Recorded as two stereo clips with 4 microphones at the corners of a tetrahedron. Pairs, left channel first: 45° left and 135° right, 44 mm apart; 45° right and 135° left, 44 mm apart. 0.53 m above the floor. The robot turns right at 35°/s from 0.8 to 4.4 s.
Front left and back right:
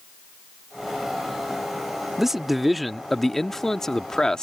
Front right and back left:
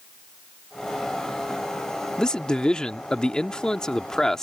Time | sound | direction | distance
2.2 | a man speaking | 70° right | ?